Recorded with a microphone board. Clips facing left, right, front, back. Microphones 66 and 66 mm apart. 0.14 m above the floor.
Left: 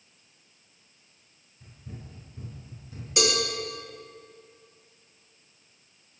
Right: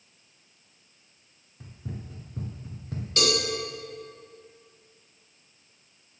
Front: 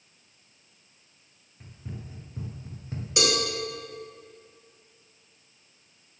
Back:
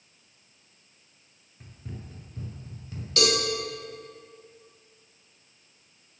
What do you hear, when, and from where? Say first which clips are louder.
1.6 s running footsteps: right 5 dB, front 1 dB; 90° right, 1.8 m; by 3.1 s 55° right, 1.7 m
3.2 s a cowbell: even, back 1 dB; 40° left, 1.6 m